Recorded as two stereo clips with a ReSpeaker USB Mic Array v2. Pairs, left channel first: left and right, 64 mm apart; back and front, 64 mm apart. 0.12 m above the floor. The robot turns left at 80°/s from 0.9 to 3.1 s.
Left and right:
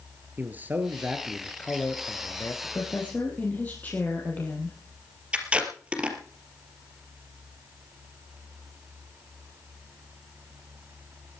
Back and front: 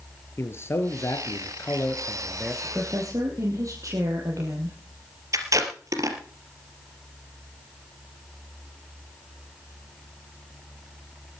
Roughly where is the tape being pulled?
Ahead.